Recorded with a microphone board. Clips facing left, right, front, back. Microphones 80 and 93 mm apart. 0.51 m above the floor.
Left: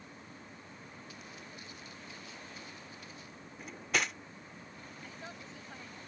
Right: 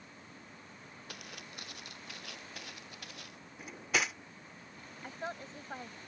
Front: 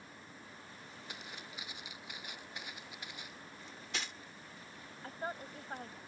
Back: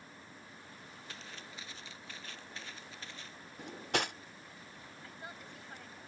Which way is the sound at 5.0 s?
45° right.